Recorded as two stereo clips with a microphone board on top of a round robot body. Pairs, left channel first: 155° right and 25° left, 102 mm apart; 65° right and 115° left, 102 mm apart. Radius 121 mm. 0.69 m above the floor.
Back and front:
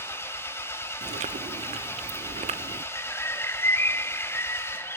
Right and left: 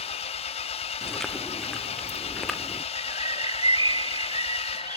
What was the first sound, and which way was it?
An engine running, 90° right.